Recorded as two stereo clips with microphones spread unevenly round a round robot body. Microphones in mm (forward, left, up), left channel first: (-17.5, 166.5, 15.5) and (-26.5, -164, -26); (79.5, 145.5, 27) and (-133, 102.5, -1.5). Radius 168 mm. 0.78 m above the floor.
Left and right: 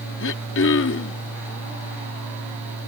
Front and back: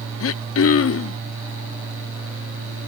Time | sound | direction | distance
0.2 | throat clearing | 30° left | ?